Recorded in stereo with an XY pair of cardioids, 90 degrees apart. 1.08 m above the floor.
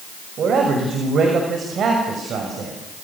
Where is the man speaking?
65° right, 6 m.